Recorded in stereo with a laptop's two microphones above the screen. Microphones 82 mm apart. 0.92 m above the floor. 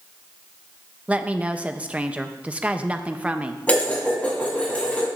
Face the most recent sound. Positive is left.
turn(degrees=20)  # may be behind; listen again after turning